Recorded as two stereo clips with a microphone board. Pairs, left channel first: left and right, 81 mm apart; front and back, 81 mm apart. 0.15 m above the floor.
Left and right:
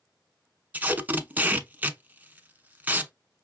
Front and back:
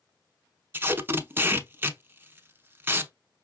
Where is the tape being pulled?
145° right, 0.6 m.